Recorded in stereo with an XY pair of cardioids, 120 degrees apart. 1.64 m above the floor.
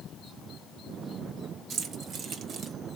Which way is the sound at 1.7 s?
65° right.